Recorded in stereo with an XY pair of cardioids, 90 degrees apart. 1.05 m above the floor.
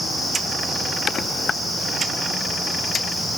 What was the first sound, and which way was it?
Only background noise.